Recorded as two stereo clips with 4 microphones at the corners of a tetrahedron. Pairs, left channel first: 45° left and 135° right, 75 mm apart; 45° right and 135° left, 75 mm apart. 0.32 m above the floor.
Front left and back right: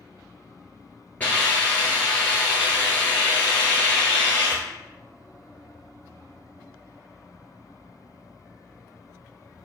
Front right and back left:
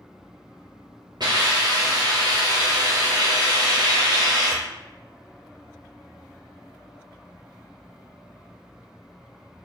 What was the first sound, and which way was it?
A hiss, 115° left.